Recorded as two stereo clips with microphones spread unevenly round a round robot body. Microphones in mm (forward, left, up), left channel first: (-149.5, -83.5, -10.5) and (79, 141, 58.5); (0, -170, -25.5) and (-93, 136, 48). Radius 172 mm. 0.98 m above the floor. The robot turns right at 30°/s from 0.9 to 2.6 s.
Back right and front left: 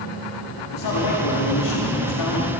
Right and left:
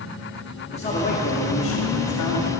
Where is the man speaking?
140° right, 2 m; by 2.5 s 90° right, 2 m.